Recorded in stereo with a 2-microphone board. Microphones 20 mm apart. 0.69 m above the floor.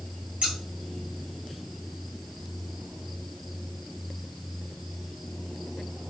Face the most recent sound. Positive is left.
turn(degrees=-70)  # may be behind; listen again after turning